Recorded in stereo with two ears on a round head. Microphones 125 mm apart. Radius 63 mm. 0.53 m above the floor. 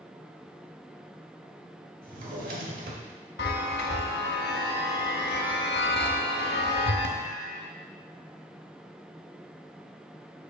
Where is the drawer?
60° right (ahead or behind), 1.3 m.